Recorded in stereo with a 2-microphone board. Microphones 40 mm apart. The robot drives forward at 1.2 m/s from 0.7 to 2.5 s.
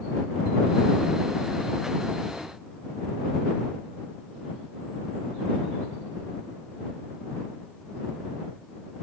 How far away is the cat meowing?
No cat meowing in this recording.